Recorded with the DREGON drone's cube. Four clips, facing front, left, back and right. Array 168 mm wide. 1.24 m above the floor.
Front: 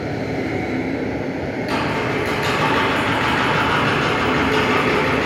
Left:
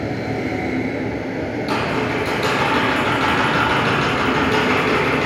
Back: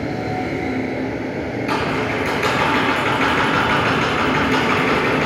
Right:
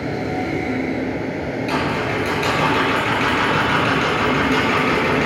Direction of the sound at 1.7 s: 160° left.